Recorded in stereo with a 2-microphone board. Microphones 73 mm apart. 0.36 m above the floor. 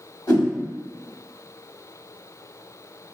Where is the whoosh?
60° left (ahead or behind), 1.7 m.